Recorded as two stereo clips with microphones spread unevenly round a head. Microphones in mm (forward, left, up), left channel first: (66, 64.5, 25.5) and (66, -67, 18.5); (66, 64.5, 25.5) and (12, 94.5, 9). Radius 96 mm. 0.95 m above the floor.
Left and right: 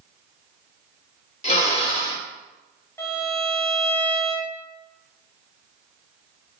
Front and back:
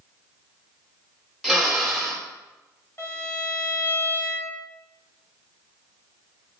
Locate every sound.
1.4 s a drill: 55° left, 3 m
3.0 s a violin: 20° left, 3 m